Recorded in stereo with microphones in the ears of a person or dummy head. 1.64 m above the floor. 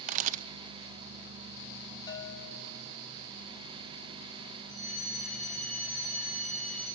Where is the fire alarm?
50° right (ahead or behind), 8.5 m.